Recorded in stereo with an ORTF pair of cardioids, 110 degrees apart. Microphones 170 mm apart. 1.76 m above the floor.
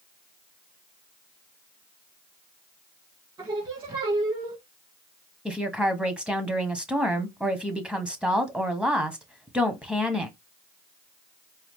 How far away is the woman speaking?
About 1.3 m.